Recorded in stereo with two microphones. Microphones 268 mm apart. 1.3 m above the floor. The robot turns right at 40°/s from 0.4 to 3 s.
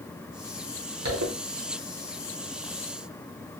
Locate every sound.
1.1 s a zipper: 85° right, 0.8 m